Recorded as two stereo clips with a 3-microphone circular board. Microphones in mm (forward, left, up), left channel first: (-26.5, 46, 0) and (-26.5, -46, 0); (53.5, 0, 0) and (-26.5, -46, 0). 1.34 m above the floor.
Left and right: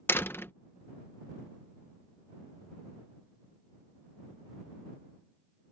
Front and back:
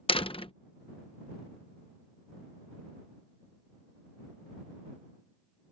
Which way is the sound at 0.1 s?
25° left.